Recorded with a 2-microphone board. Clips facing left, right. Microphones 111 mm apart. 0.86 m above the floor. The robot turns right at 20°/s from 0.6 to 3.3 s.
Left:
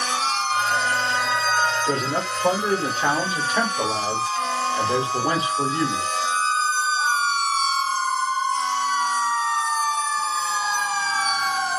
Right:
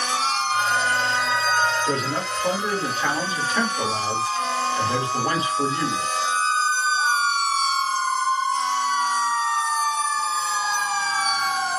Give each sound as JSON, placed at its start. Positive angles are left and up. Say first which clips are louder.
{"t": 1.9, "sound": "a man speaking", "louder": "left 1 dB", "side_deg": 45, "distance_m": 2.0}